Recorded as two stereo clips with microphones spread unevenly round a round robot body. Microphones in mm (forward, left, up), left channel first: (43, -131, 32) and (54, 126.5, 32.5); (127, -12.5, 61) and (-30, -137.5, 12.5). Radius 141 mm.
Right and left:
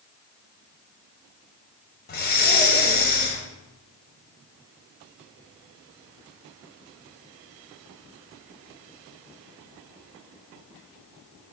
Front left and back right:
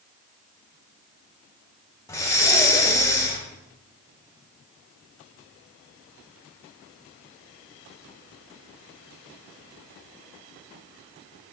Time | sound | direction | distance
2.1 | breathing | 45° right | 0.8 m